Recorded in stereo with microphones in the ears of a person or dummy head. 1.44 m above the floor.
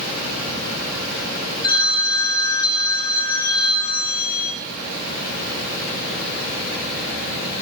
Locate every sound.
1.6 s a phone ringing: 25° left (ahead or behind), 3 m